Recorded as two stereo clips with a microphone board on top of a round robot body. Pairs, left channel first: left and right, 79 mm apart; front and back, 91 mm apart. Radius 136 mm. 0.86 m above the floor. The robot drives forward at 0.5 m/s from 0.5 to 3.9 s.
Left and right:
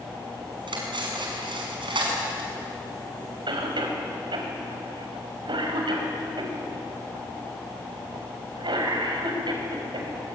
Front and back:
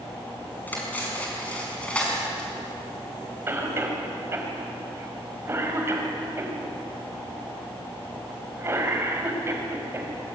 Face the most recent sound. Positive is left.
turn(degrees=-115)